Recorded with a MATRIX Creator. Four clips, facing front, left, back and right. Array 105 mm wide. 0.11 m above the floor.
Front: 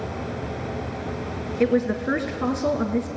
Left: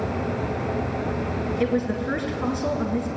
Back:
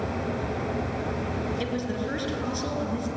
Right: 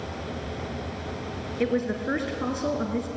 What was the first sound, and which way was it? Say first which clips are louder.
A woman speaking: even, front 8 dB; 5° right.